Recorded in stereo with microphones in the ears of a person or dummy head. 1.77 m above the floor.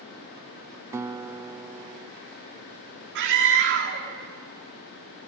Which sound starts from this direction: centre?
A guitar, at 0.9 s.